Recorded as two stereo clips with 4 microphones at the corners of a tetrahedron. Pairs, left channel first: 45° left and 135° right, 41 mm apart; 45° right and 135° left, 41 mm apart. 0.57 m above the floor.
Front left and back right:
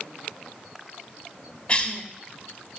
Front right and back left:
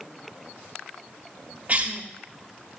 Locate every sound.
1.7 s a cough: 100° left, 1.1 m